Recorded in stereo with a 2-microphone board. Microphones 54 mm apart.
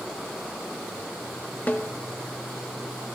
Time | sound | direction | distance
1.7 | a snare drum | 30° left (ahead or behind) | 0.8 m